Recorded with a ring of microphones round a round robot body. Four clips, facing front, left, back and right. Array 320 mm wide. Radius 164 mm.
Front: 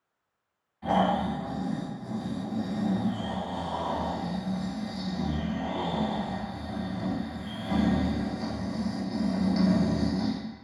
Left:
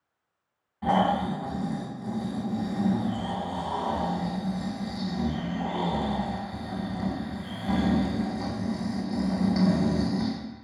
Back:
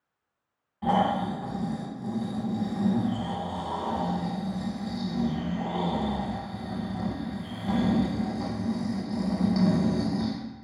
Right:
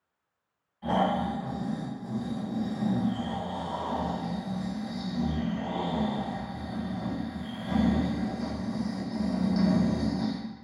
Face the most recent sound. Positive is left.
turn(degrees=130)